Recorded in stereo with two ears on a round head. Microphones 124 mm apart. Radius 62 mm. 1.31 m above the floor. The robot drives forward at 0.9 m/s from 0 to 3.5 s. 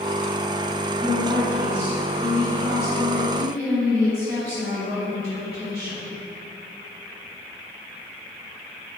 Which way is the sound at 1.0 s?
20° right (ahead or behind).